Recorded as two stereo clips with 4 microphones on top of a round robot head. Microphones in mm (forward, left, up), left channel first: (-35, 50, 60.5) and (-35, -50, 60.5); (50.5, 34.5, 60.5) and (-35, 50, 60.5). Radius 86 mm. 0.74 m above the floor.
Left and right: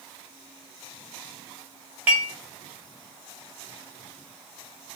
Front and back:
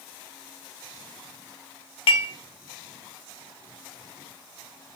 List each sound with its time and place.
2.1 s dishes clattering: 15° right, 0.6 m